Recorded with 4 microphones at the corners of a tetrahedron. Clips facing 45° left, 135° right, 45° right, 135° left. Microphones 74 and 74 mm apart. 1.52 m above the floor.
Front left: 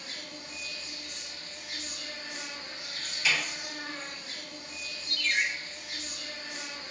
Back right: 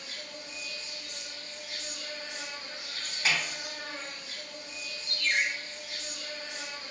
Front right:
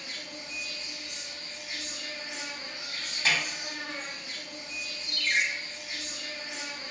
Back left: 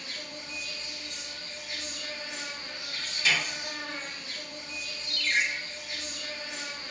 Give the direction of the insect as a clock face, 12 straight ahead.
11 o'clock.